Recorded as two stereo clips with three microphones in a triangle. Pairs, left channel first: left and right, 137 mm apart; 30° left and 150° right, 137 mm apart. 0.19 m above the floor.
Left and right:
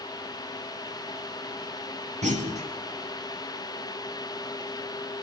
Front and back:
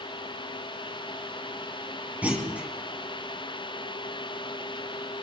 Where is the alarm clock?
I don't hear an alarm clock.